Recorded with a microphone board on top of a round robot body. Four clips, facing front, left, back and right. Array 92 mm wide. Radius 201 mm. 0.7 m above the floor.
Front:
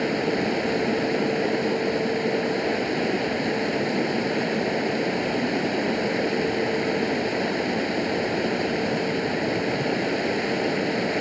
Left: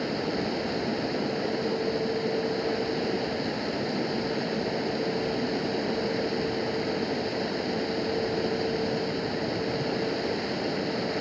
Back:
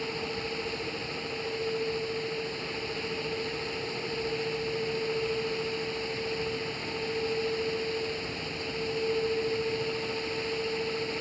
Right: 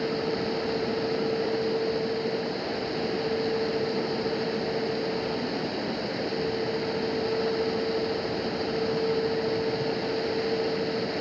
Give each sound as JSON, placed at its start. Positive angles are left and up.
{"t": 0.0, "sound": "running water", "azimuth_deg": 0}